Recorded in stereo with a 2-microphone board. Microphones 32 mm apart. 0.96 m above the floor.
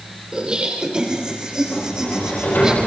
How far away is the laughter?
About 3 m.